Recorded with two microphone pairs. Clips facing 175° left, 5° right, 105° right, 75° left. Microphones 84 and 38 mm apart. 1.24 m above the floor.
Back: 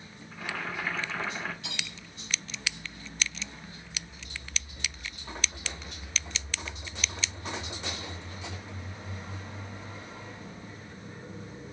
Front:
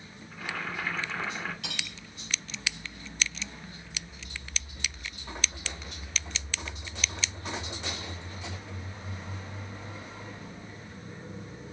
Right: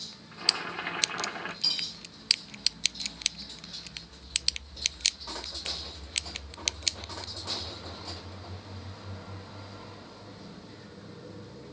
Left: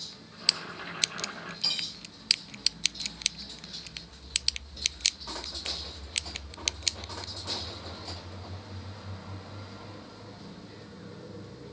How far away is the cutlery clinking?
About 3 m.